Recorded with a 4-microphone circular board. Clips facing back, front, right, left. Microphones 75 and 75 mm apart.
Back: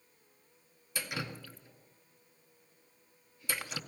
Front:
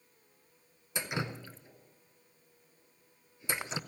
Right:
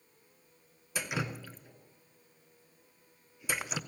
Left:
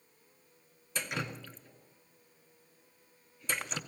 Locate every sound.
0.9 s dripping: 20° right, 0.5 m